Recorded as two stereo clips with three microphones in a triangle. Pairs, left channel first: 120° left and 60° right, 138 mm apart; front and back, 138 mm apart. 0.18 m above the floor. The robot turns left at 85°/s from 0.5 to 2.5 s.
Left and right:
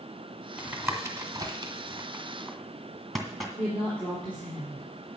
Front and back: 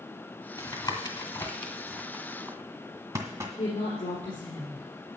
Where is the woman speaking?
40° left, 3.5 m.